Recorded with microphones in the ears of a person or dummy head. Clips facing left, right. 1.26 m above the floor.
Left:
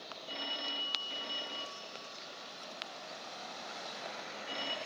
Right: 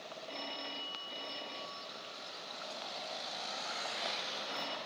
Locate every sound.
0.3 s a phone ringing: 10° left (ahead or behind), 1.6 m